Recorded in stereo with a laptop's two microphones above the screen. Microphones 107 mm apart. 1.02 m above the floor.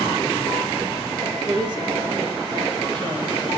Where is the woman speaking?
40° right (ahead or behind), 2 m.